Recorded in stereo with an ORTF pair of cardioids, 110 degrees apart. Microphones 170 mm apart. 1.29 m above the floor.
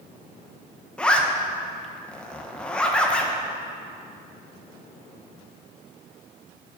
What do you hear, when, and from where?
1.0 s a zipper: 5° left, 0.6 m